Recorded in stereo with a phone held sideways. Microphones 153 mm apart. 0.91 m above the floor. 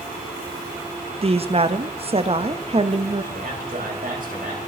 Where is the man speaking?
65° right (ahead or behind), 4 m.